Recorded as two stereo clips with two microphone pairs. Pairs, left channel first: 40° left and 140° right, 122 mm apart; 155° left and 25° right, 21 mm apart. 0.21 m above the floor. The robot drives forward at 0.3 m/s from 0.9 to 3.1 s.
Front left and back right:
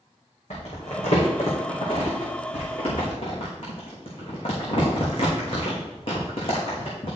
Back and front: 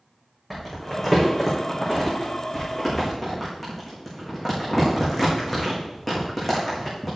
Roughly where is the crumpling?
Left.